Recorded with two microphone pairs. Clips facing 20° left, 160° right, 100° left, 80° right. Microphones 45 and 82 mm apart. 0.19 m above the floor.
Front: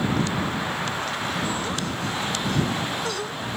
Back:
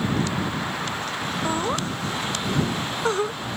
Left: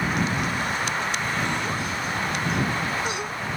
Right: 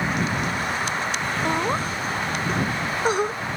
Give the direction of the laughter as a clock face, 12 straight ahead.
4 o'clock.